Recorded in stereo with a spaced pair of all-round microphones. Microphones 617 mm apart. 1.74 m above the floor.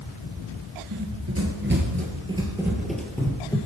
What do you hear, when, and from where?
0.9 s running footsteps: 30° right (ahead or behind), 1.9 m; by 3.6 s 10° left (ahead or behind), 2.5 m